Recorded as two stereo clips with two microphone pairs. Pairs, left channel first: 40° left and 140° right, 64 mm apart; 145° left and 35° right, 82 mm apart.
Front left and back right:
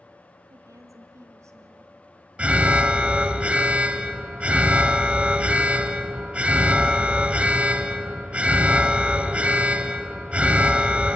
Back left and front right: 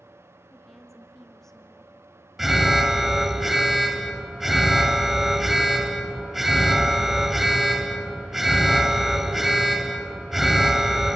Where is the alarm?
115° right, 1.0 m.